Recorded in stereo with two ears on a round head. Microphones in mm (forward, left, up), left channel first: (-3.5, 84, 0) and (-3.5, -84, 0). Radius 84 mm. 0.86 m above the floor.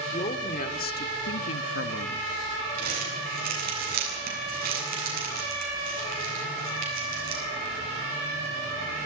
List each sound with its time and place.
0.1 s a woman speaking: 35° left (ahead or behind), 2.5 m; by 2.2 s 45° left (ahead or behind), 1.4 m
2.8 s crumpling: 50° right (ahead or behind), 9 m